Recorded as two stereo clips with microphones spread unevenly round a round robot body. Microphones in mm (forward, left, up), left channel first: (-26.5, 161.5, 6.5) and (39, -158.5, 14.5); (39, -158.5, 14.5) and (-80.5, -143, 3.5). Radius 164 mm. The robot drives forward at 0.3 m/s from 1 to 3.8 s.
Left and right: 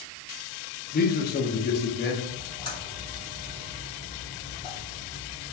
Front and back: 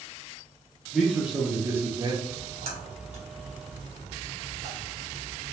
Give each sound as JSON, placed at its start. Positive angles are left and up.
{"t": 0.9, "sound": "a man speaking", "azimuth_deg": 90, "distance_m": 0.6}
{"t": 2.2, "sound": "a splash", "azimuth_deg": 175, "distance_m": 1.5}